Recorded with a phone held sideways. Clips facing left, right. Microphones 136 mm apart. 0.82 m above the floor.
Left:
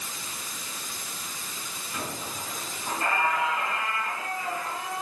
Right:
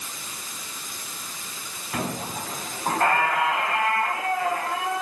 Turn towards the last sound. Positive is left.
turn(degrees=-80)